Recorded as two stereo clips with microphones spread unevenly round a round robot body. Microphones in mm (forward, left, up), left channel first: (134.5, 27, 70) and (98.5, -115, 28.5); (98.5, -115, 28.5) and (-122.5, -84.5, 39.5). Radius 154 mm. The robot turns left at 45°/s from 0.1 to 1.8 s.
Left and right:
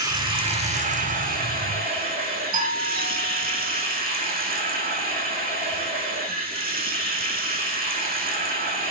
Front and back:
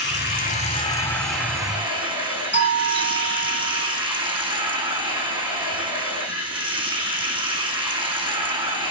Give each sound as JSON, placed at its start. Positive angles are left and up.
{"t": 0.0, "sound": "running water", "azimuth_deg": -45, "distance_m": 5.0}
{"t": 2.5, "sound": "a doorbell", "azimuth_deg": -155, "distance_m": 5.0}